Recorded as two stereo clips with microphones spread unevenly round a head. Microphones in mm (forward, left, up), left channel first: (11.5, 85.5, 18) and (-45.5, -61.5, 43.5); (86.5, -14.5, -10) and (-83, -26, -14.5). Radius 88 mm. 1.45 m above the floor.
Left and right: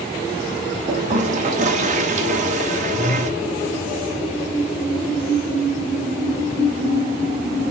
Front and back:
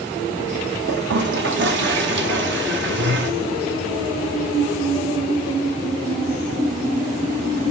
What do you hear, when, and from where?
0.9 s a toilet flushing: 160° right, 1.3 m